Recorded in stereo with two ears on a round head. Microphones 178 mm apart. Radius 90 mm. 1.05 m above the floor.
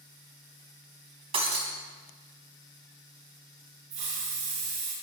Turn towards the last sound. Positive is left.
turn(degrees=-35)  # may be behind; listen again after turning